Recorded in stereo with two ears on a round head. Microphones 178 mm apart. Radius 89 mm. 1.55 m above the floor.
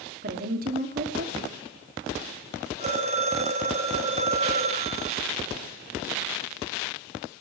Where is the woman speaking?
45° right (ahead or behind), 3 m.